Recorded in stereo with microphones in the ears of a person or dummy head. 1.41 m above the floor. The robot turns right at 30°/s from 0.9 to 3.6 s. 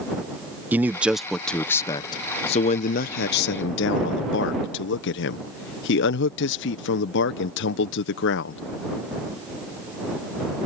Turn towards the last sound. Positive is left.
turn(degrees=75)